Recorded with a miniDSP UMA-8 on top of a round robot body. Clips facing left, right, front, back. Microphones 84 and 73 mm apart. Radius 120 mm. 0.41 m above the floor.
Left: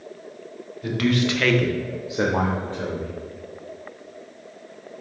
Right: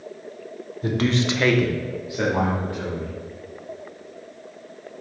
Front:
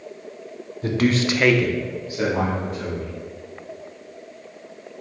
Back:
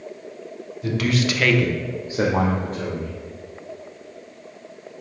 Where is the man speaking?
35° right, 1.5 m; by 3.1 s 145° left, 2.5 m.